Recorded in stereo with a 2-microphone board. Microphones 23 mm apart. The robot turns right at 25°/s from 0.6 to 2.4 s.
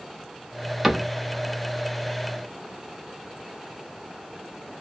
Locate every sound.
0.8 s a cupboard door: 10° right (ahead or behind), 0.7 m; by 1.1 s 5° right (ahead or behind), 0.7 m